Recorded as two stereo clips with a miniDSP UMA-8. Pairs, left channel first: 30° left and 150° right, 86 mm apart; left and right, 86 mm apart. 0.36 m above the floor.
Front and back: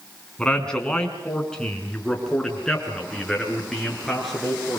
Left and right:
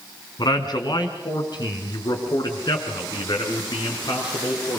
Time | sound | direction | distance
0.4 | a man speaking | 110° left | 4.5 m